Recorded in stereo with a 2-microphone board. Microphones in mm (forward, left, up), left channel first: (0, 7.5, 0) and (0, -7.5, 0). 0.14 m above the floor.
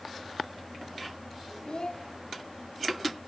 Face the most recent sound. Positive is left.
turn(degrees=60)  # may be behind; listen again after turning